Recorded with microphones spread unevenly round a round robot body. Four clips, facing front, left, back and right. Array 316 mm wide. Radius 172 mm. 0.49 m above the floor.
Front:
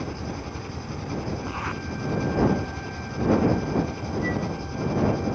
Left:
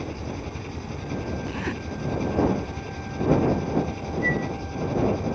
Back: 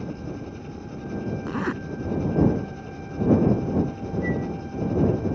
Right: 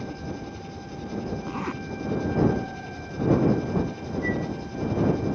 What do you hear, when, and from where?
0.0 s an engine running: 45° left
1.5 s a zipper: 175° right
4.2 s a flute: 75° left